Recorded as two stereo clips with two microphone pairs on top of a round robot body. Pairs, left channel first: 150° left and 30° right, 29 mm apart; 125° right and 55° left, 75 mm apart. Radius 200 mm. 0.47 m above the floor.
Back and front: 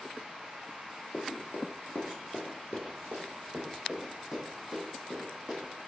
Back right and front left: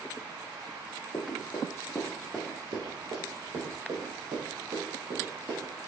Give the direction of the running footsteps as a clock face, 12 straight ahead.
5 o'clock.